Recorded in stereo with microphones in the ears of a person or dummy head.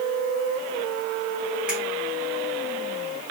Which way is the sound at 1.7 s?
10° right (ahead or behind).